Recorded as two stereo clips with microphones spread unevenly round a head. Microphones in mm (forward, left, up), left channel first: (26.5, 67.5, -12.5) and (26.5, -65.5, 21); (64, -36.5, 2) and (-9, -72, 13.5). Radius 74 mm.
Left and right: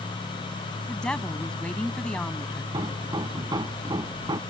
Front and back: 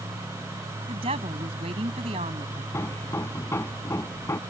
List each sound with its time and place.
0.9 s a woman speaking: 175° left
2.7 s hammering: 30° right